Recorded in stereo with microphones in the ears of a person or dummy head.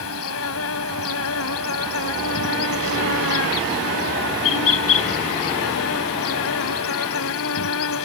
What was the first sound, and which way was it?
An insect, 85° left.